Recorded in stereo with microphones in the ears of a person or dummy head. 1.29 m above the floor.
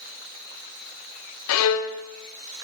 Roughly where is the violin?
Left.